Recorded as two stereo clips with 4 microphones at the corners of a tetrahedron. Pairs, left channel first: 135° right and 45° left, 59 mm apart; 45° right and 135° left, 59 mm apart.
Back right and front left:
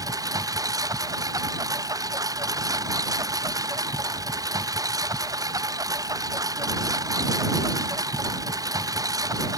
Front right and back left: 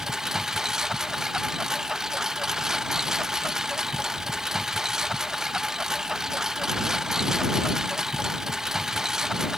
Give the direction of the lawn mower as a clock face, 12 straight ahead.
10 o'clock.